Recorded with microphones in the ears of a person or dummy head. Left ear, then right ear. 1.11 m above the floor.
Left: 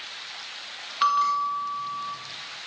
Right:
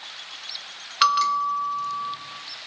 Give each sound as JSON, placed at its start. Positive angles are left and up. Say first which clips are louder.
{"t": 1.0, "sound": "a bell", "louder": "right 2 dB", "side_deg": -75, "distance_m": 1.3}